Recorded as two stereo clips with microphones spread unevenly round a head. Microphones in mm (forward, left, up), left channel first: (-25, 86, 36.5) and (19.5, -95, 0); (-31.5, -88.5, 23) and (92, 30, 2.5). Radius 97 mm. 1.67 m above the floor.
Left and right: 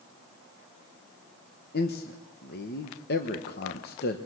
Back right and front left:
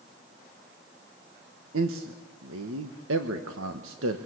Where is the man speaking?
70° left, 1.4 m.